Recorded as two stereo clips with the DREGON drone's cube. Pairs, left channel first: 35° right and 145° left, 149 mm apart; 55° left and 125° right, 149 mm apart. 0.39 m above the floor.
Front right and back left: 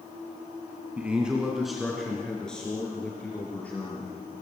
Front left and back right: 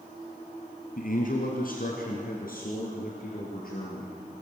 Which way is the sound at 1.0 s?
65° left.